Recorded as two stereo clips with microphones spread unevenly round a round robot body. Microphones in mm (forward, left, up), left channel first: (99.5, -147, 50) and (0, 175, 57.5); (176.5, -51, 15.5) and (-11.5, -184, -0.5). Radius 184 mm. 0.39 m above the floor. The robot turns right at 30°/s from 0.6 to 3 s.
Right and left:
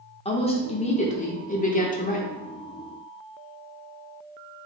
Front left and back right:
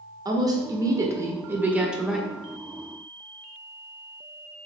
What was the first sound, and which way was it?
A woman speaking, 115° right.